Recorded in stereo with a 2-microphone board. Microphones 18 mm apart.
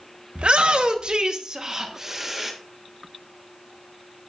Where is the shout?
70° right (ahead or behind), 1.0 m; by 2.5 s 15° right (ahead or behind), 1.2 m.